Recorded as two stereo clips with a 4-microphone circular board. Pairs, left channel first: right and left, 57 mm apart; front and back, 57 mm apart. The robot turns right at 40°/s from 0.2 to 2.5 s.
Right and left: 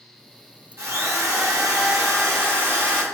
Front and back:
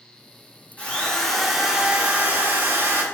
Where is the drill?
65° left, 1.0 m; by 3.0 s 130° left, 1.0 m.